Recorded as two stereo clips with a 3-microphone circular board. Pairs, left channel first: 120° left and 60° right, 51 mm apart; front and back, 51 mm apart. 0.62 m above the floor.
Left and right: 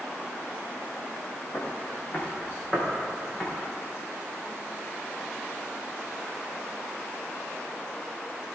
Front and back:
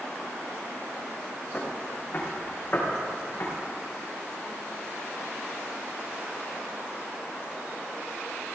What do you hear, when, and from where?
1.5 s footsteps: 60° left, 4.5 m; by 3.5 s 45° left, 6.5 m